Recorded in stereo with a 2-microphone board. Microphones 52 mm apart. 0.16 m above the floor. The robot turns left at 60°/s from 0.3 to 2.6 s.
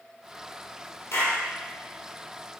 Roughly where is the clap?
Left.